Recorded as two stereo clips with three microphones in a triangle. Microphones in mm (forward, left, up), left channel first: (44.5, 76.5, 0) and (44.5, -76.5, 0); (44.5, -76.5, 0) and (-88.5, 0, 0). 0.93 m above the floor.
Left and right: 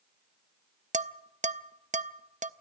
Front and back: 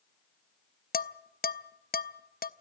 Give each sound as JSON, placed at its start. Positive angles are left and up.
{"t": 0.9, "sound": "dishes clattering", "azimuth_deg": -50, "distance_m": 0.6}